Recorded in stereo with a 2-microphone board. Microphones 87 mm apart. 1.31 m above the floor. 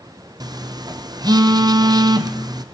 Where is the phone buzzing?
50° right (ahead or behind), 0.7 m.